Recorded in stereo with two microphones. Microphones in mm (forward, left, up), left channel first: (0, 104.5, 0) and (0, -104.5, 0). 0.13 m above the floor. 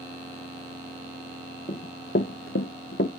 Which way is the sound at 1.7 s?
35° left (ahead or behind).